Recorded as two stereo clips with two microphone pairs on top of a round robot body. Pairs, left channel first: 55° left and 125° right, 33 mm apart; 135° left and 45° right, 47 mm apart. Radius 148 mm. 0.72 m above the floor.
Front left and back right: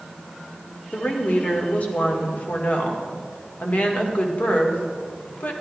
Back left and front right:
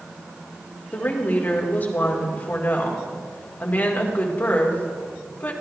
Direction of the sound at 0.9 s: 85° left.